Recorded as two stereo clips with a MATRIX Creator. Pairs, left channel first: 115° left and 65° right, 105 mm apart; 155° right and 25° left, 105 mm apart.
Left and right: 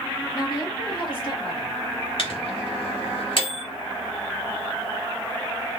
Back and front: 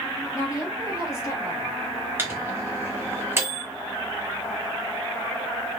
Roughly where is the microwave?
Left.